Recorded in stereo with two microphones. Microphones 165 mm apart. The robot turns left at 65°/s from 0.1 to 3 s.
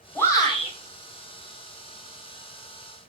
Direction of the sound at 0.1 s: 170° left.